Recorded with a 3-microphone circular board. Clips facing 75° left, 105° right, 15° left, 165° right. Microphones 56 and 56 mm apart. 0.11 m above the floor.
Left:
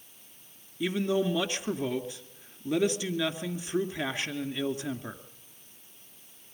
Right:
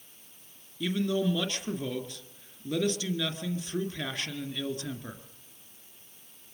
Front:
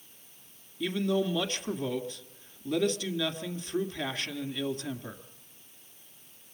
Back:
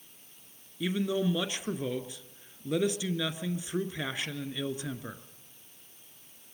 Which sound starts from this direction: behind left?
A man speaking, at 0.8 s.